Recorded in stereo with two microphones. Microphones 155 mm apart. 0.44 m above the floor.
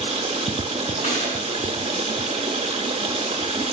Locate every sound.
0.0 s running water: 40° right (ahead or behind), 0.7 m
1.0 s a gunshot: 60° left (ahead or behind), 4 m